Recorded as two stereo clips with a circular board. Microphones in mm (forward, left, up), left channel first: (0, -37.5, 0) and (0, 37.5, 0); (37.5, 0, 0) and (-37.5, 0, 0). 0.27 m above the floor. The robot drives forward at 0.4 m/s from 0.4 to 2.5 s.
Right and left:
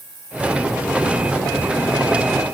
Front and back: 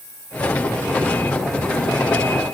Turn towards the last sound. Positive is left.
No sound to turn to.